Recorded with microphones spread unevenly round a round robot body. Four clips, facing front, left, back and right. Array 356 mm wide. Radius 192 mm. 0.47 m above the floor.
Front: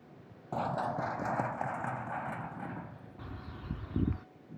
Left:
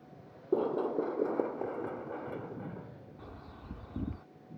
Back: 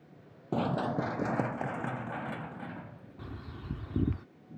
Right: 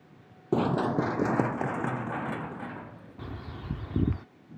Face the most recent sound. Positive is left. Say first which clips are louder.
# right 11 dB, back 2 dB
turn(degrees=-130)